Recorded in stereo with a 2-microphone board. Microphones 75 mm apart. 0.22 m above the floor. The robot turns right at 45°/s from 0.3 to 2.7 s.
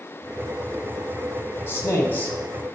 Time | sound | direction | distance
1.7 | a man speaking | 30° left (ahead or behind) | 1.5 m